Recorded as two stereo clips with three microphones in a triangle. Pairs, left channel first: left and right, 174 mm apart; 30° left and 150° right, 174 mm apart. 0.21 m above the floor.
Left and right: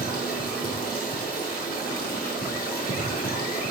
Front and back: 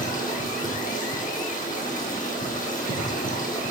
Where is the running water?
65° left, 2.5 m.